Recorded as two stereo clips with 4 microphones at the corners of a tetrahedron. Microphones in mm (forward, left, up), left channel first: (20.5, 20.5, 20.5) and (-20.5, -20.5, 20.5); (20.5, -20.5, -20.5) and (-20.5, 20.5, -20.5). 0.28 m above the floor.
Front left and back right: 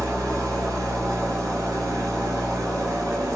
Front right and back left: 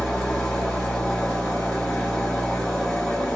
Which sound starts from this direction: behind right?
An engine running, at 0.0 s.